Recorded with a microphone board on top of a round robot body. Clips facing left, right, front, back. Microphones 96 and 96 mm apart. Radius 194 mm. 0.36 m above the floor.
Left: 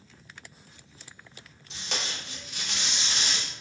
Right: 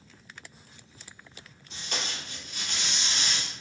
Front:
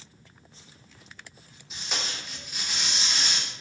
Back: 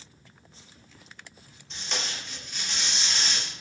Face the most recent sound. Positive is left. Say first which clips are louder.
# even, even
turn(degrees=85)